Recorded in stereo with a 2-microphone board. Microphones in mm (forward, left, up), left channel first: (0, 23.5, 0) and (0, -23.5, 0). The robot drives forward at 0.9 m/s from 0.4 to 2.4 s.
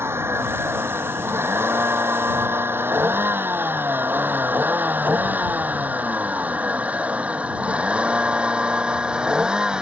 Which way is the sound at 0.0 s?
60° right (ahead or behind).